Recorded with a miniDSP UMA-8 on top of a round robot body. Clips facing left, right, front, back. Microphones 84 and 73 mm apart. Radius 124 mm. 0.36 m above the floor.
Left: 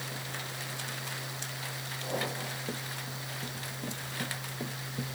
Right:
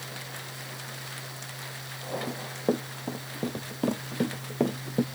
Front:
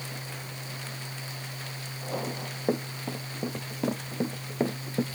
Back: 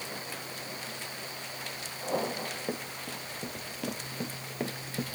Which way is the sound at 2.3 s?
55° right.